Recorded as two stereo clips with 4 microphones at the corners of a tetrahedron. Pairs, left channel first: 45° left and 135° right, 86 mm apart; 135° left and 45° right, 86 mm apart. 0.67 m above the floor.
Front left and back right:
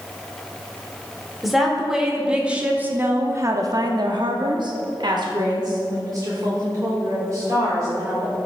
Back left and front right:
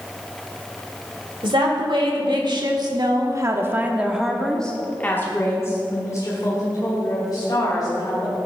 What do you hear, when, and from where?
1.4 s a woman speaking: 45° right, 1.8 m; by 8.4 s 170° left, 3 m